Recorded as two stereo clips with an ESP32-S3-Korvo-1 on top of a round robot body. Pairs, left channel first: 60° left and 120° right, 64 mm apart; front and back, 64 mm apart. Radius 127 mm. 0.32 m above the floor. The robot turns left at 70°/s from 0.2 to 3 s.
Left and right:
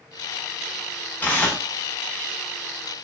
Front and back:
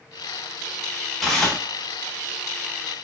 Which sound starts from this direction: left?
Tearing paper, at 1.2 s.